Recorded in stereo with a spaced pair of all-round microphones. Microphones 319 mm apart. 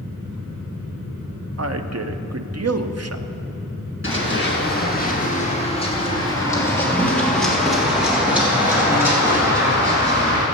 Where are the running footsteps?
40° left (ahead or behind), 2 m; by 10.4 s 15° right (ahead or behind), 4.5 m.